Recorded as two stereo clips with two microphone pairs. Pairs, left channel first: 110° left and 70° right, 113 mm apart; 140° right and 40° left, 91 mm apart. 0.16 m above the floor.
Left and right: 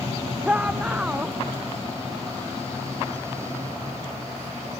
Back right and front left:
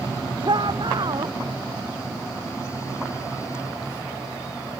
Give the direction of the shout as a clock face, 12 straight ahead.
12 o'clock.